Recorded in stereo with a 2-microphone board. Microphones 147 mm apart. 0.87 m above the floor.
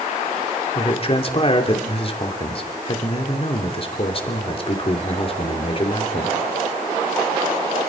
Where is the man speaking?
40° left (ahead or behind), 3 m.